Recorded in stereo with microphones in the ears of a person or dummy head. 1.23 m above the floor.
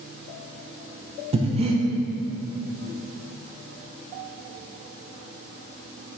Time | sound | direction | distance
1.3 | breathing | 35° right (ahead or behind) | 0.8 m